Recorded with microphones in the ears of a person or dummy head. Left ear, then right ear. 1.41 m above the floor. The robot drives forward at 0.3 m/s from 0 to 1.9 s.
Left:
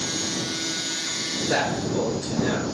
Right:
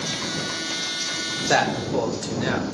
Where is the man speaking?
75° right (ahead or behind), 0.8 m; by 2.6 s 70° right (ahead or behind), 0.8 m.